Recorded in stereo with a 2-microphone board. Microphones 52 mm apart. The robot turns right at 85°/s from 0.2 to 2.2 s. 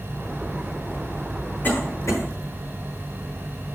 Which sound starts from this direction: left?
A cough, at 1.6 s.